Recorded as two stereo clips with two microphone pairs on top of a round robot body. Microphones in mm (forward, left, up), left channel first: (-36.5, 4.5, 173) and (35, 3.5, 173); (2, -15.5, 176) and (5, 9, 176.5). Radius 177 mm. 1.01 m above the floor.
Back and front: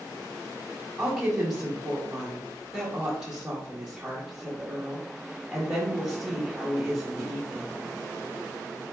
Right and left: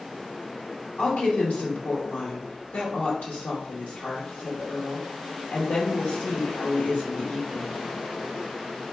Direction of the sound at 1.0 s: 85° right.